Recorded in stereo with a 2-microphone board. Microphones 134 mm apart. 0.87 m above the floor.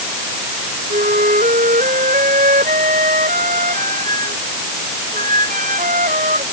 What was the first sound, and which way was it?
A flute, 80° right.